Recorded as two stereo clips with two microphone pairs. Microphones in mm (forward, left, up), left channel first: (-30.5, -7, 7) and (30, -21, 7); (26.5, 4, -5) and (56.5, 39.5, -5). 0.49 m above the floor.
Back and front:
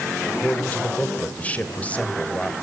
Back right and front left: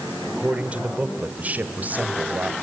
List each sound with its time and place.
0.4 s a man speaking: 110° left, 1.8 m; by 2.5 s 100° left, 3 m